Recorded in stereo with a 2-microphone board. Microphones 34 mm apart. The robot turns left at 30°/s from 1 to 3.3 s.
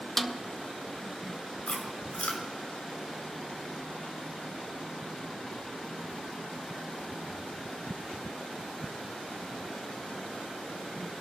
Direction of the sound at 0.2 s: 5° left (ahead or behind).